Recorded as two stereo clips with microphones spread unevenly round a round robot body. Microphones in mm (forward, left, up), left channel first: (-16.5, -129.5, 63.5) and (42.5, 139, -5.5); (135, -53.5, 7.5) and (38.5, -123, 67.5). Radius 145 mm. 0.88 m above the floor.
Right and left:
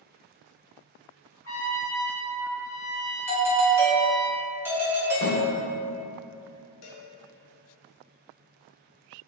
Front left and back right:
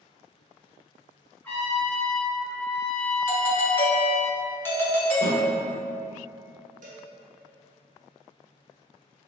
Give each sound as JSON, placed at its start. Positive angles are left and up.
{"t": 1.4, "sound": "a trumpet", "azimuth_deg": -15, "distance_m": 1.3}
{"t": 3.3, "sound": "a doorbell", "azimuth_deg": 15, "distance_m": 0.9}
{"t": 5.2, "sound": "a snare drum", "azimuth_deg": 135, "distance_m": 1.2}
{"t": 6.8, "sound": "a cowbell", "azimuth_deg": -125, "distance_m": 0.8}